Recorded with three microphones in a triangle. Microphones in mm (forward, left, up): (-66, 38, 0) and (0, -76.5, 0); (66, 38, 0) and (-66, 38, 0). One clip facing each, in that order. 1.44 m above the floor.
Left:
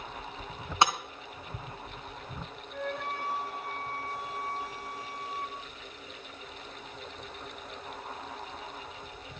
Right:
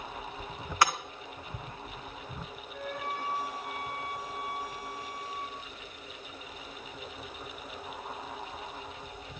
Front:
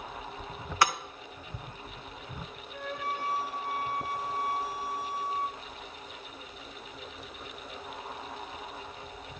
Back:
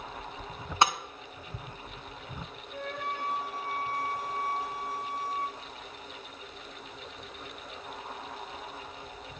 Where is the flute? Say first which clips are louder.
Left 2 dB, even; 150° left, 3.5 m.